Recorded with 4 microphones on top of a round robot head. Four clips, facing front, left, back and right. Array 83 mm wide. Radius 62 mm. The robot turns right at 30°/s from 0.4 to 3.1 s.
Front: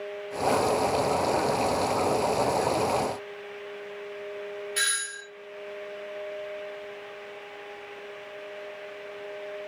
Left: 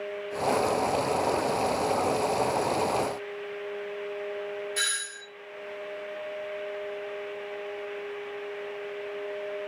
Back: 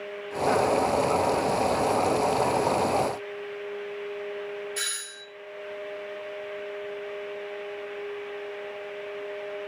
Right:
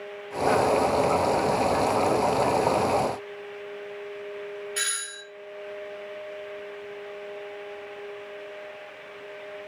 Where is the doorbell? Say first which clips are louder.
Left 1 dB, front 6 dB; 50° right, 2.0 m.